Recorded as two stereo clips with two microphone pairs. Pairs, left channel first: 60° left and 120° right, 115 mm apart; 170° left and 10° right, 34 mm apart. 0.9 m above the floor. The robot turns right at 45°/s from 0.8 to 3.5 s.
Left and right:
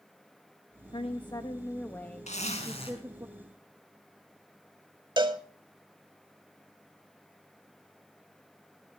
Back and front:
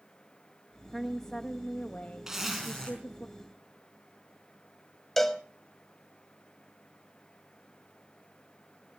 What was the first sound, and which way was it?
A woman speaking, 85° left.